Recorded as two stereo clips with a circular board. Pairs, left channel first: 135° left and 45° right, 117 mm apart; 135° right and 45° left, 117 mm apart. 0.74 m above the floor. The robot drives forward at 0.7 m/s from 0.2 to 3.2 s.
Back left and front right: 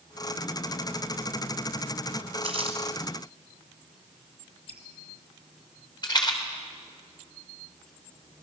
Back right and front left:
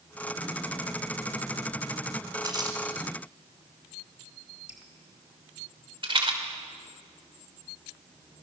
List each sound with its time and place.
2.4 s crumpling: 10° right, 3 m
4.7 s dripping: 35° right, 3.5 m
6.0 s a rattle: 85° left, 3 m